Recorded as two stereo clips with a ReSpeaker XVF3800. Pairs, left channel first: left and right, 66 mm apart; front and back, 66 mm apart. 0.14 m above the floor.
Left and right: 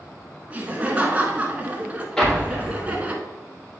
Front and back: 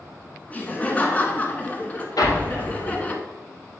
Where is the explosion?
10° left, 2.5 m.